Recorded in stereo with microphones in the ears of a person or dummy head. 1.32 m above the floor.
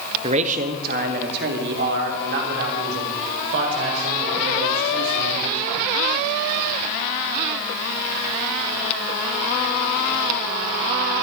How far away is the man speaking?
About 1.2 m.